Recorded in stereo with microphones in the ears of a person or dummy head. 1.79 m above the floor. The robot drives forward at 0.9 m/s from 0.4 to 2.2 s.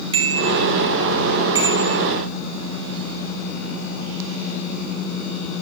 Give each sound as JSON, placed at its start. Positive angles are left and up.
{"t": 0.1, "sound": "a bicycle bell", "side_deg": -25, "distance_m": 2.5}